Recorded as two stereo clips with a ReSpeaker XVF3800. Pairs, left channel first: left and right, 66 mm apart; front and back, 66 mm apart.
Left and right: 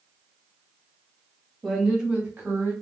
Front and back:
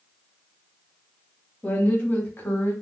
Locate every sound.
1.6 s a woman speaking: 5° left, 1.3 m; by 2.7 s 40° right, 2 m